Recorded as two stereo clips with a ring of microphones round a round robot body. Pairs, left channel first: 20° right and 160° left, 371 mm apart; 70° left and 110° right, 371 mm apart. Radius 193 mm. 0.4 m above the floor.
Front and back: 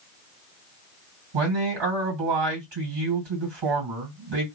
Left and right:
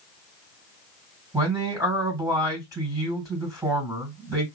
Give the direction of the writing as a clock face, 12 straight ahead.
No writing in this recording.